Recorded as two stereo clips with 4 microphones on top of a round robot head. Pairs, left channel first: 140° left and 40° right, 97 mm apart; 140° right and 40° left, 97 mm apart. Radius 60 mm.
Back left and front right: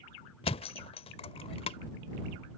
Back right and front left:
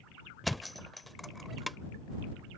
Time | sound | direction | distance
0.4 | a thud | 130° left | ?